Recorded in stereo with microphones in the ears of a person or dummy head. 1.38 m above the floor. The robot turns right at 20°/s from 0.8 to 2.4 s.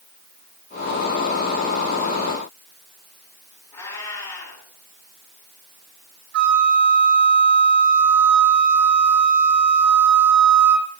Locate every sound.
3.7 s a cat meowing: 30° left (ahead or behind), 7 m
6.3 s a flute: 65° right (ahead or behind), 1.6 m